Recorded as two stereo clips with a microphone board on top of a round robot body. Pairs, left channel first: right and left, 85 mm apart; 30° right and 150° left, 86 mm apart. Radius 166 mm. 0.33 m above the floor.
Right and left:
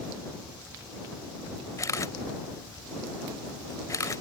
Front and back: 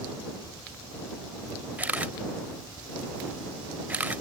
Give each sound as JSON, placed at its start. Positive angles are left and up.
{"t": 1.8, "sound": "a camera shutter", "azimuth_deg": -140}